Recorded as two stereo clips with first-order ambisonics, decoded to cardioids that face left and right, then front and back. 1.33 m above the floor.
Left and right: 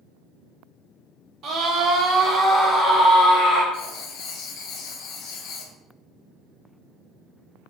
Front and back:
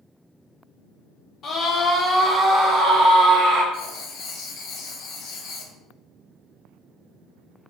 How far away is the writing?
About 0.5 m.